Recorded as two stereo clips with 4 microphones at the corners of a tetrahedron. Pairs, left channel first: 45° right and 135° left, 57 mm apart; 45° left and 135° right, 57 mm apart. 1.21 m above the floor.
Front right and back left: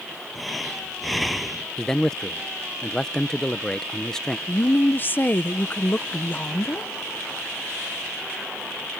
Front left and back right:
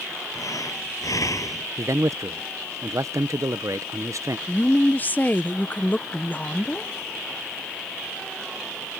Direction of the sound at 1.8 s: 125° right.